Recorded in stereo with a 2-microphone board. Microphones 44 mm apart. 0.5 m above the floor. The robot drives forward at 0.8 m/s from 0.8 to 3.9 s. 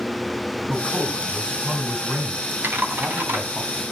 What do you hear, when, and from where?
0.7 s a man speaking: 20° right (ahead or behind), 6 m; by 3.6 s 30° right (ahead or behind), 4 m
2.6 s typing on a keyboard: 55° right (ahead or behind), 3.5 m; by 3.4 s 50° right (ahead or behind), 4 m